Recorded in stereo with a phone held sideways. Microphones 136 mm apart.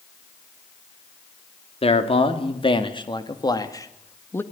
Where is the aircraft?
No aircraft in this recording.